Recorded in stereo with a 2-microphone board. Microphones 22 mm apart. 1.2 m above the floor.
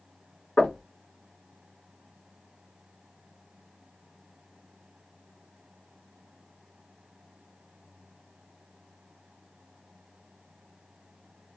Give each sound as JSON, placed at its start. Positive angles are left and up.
{"t": 0.6, "sound": "knocking", "side_deg": 80, "distance_m": 1.3}